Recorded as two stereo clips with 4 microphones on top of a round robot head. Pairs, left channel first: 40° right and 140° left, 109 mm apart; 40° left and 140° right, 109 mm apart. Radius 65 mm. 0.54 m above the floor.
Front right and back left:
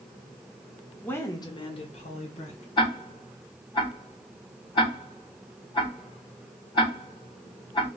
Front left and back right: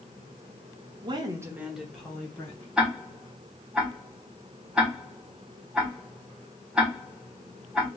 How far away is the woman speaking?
About 1.0 m.